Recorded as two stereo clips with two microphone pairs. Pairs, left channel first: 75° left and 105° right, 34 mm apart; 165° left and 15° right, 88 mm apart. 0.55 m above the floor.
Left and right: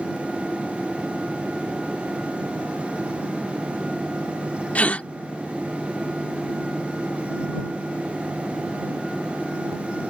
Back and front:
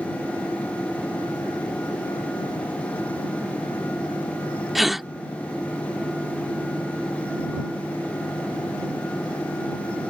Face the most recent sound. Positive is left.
turn(degrees=70)